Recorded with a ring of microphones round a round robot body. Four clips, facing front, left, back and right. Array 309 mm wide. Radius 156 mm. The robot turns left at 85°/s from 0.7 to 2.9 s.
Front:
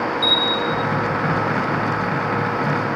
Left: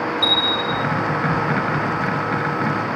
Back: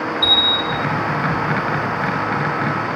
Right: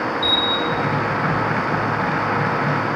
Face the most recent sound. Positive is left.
turn(degrees=-85)